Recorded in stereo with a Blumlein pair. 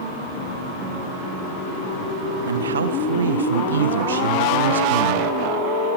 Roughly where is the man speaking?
Ahead right.